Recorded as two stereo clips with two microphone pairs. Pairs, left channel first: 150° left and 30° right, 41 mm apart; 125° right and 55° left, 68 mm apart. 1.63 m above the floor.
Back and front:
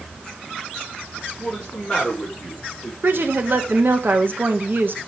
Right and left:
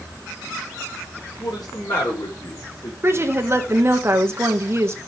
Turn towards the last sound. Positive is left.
turn(degrees=5)